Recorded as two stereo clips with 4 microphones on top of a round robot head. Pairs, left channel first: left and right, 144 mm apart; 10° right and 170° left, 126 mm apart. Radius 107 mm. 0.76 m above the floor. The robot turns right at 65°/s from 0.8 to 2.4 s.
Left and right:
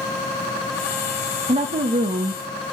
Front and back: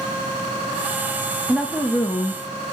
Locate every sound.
1.5 s a woman speaking: 110° right, 0.8 m; by 2.4 s 50° right, 0.8 m